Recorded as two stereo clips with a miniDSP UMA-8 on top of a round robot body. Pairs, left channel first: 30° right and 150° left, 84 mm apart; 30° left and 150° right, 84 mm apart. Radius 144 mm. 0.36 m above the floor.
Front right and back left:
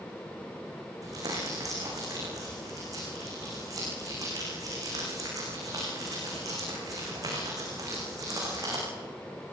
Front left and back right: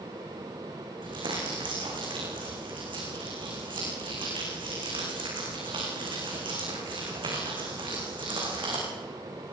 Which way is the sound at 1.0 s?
165° right.